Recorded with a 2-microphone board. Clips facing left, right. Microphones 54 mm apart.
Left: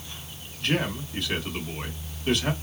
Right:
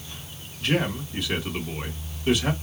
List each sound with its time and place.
0.6 s a man speaking: 5° right (ahead or behind), 1.5 m